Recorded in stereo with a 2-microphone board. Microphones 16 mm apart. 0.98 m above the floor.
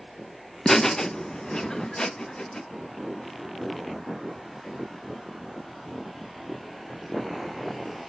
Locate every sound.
0.7 s laughter: 35° left (ahead or behind), 0.6 m; by 2.6 s 65° left (ahead or behind), 1.6 m